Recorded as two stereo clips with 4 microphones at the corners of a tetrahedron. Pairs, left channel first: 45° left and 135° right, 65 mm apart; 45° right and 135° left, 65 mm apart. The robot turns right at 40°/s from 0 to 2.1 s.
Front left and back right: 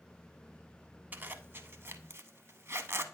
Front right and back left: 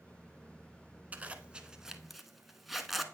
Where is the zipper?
Straight behind, 0.5 m; by 3.0 s 140° right, 0.5 m.